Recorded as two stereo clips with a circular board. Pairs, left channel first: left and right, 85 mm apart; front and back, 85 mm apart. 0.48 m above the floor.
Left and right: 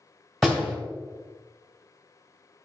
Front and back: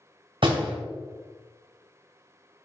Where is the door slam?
Straight behind, 2.5 m.